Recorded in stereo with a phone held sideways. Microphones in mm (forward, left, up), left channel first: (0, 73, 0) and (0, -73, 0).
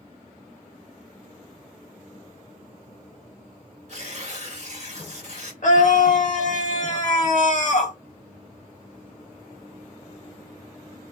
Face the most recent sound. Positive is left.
turn(degrees=60)  # may be behind; listen again after turning